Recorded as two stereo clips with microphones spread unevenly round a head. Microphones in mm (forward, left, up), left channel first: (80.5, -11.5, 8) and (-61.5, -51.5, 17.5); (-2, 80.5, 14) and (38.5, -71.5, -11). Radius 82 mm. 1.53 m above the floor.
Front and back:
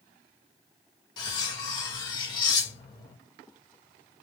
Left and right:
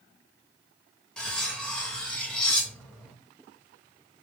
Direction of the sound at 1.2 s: 50° left.